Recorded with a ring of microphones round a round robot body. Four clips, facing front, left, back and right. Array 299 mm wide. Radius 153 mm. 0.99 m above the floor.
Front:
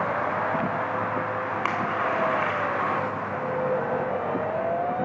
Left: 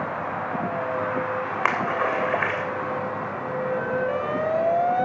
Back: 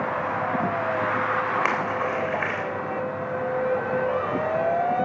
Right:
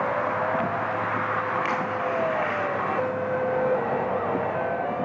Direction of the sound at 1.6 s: 110° left.